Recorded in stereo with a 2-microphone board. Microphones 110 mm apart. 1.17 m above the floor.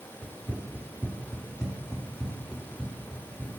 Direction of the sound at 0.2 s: 15° right (ahead or behind).